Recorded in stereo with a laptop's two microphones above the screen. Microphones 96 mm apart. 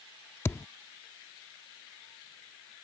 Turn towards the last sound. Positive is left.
turn(degrees=25)  # may be behind; listen again after turning